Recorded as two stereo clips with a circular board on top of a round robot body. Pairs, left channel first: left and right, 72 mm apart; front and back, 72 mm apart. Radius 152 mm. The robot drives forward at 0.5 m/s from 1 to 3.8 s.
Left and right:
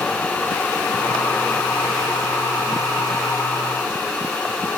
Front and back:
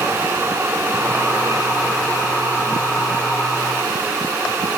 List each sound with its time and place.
Only background noise.